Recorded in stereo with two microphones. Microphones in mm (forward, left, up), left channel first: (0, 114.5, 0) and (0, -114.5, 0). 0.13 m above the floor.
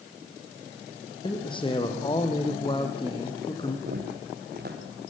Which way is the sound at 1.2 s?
20° left (ahead or behind).